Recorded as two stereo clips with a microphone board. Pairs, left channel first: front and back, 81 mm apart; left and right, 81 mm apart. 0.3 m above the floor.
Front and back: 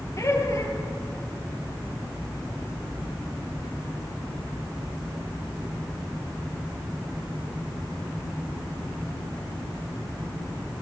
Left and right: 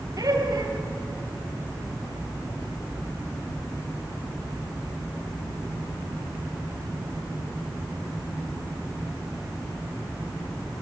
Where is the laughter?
50° right, 5.5 m.